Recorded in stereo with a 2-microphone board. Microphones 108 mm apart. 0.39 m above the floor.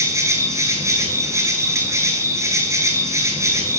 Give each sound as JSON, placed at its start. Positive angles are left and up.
{"t": 0.0, "sound": "an insect", "side_deg": -30, "distance_m": 1.1}